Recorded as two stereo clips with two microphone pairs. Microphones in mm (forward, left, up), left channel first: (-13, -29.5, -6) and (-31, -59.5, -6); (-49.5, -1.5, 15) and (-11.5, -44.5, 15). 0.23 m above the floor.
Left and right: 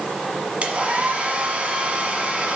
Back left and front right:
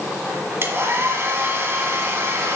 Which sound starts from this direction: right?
A hair dryer, at 0.6 s.